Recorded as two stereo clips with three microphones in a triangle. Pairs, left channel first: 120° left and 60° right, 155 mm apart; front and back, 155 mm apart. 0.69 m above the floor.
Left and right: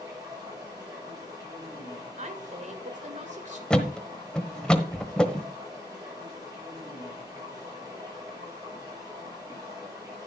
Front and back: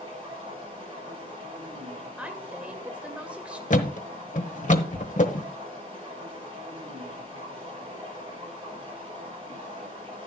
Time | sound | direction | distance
0.0 | running water | 125° right | 8.5 m
2.2 | a woman speaking | 100° right | 2 m
3.7 | a thud | 35° left | 1.1 m